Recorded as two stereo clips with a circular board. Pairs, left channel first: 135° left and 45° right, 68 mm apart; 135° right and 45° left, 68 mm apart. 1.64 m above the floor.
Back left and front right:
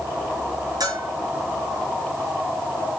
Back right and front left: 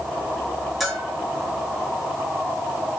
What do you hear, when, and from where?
0.8 s a bell: 40° right, 5.5 m